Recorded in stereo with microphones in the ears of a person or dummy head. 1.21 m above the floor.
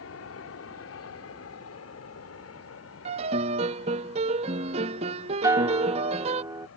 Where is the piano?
30° right (ahead or behind).